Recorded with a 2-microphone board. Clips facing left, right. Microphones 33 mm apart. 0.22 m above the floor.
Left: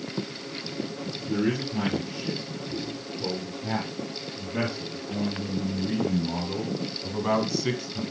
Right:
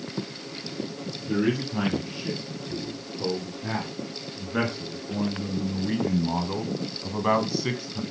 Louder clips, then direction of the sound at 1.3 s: Right 2 dB; 35° right (ahead or behind).